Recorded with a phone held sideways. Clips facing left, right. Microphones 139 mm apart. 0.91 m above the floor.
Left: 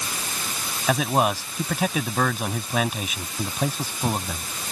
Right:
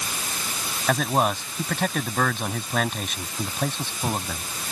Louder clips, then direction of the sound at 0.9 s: Left 1 dB; 5° left (ahead or behind).